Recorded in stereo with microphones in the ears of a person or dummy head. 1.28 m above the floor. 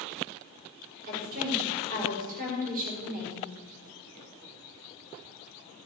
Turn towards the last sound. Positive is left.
turn(degrees=-45)  # may be behind; listen again after turning